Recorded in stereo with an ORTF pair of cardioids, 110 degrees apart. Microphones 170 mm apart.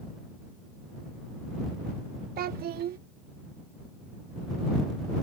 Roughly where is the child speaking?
Ahead right.